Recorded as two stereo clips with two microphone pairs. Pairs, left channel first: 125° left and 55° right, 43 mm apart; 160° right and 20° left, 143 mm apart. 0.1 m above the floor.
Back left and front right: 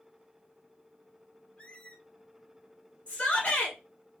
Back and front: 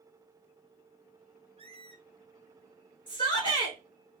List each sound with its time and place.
1.6 s a squeak: 60° left, 0.7 m
3.1 s a shout: 160° left, 2 m